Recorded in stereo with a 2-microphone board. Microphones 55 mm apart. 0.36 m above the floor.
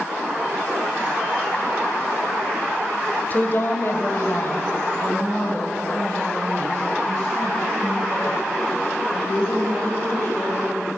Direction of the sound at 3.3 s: 35° left (ahead or behind).